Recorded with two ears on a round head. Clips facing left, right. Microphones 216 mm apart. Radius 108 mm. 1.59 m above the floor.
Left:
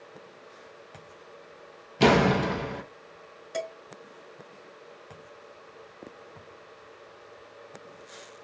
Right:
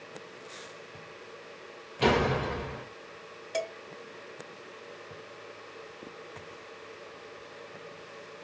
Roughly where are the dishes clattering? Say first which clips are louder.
Even; centre.